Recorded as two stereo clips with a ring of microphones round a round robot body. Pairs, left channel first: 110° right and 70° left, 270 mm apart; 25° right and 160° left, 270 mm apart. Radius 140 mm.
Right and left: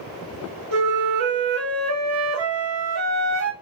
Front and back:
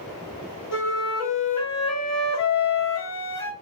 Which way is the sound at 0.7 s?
25° left.